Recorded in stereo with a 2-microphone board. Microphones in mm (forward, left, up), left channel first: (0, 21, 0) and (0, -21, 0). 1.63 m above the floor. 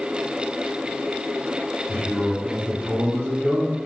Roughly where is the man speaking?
Right.